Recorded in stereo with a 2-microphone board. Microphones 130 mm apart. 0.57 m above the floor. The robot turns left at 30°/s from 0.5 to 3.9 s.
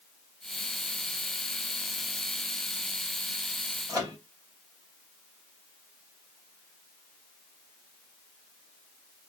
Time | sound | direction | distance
3.9 | a microwave | 30° right (ahead or behind) | 2.5 m